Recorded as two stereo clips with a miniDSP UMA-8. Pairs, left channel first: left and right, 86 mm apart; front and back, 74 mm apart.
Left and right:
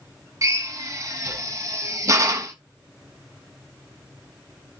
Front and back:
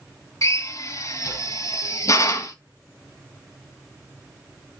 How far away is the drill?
About 1.3 m.